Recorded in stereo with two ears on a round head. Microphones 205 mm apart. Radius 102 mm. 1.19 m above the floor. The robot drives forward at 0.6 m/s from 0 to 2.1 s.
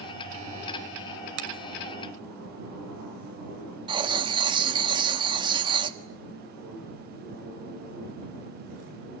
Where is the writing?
20° right (ahead or behind), 1.5 m.